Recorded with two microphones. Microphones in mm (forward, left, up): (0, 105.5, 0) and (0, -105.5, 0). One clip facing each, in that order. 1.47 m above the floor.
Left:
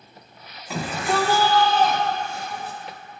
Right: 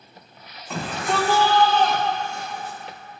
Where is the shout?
5° left (ahead or behind), 4 m; by 2.8 s 10° left (ahead or behind), 5.5 m.